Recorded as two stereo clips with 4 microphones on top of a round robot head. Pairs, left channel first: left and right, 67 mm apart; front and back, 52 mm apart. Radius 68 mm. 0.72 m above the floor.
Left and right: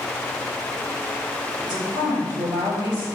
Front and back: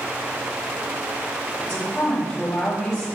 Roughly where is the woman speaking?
Right.